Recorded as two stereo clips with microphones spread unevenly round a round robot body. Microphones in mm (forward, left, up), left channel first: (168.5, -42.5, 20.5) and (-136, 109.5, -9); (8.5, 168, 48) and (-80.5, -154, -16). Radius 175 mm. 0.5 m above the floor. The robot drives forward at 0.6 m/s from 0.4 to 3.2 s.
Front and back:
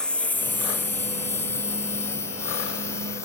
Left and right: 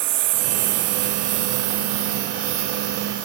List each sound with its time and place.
0.0 s a lawn mower: 115° right; by 3.2 s 110° right